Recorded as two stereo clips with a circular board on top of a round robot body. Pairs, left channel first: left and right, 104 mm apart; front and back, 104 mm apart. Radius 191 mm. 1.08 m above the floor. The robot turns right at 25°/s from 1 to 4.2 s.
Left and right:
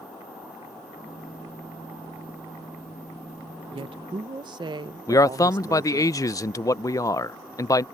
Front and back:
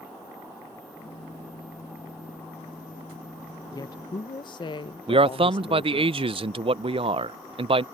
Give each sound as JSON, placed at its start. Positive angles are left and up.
{"t": 3.7, "sound": "a woman speaking", "azimuth_deg": -55}
{"t": 5.1, "sound": "a man speaking", "azimuth_deg": 150}